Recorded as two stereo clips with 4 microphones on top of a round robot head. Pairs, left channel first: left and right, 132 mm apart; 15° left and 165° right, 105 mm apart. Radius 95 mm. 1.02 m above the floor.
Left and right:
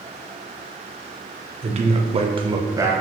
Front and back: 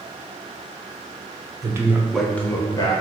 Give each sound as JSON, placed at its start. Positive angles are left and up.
{"t": 1.6, "sound": "a man speaking", "azimuth_deg": -115, "distance_m": 1.2}